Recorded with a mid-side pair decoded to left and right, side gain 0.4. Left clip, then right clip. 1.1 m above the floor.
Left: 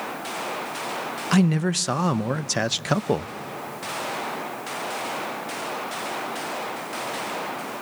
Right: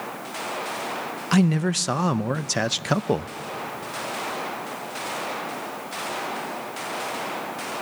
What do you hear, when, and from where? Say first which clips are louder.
1.3 s a man speaking: even; straight ahead, 0.5 m